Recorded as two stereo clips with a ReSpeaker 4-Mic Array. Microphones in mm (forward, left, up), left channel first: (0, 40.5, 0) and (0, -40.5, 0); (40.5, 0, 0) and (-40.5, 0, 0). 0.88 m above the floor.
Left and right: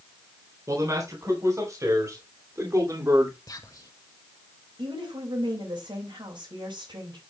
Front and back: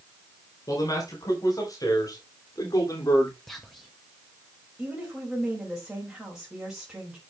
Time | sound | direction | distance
0.7 | a man speaking | 40° right | 4 m
3.5 | whispering | 85° left | 1.1 m
4.8 | a woman speaking | 95° right | 4.5 m